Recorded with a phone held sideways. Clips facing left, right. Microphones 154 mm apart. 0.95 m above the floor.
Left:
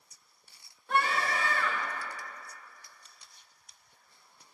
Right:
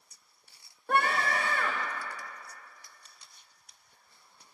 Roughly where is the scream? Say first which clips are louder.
Right 1 dB; right.